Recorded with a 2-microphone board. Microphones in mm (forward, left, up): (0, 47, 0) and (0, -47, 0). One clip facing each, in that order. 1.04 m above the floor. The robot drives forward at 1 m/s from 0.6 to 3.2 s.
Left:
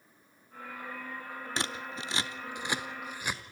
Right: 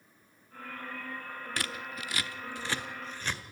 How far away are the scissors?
About 0.7 m.